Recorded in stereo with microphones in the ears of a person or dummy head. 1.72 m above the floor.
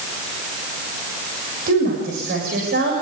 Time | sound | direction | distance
1.7 | a woman speaking | 60° right (ahead or behind) | 6.5 m